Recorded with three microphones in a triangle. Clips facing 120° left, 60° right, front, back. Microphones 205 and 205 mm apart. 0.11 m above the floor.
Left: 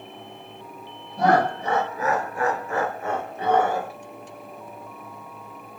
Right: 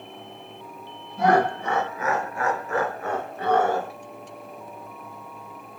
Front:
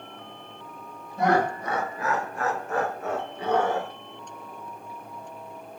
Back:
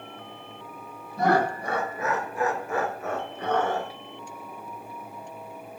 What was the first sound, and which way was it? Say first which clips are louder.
Laughter: even, even; 150° left.